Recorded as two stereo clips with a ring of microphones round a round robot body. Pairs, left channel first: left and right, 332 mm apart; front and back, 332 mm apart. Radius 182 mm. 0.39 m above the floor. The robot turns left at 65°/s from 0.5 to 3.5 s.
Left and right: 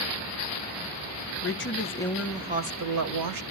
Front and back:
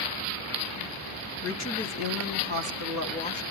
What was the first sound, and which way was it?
A woman speaking, 50° left.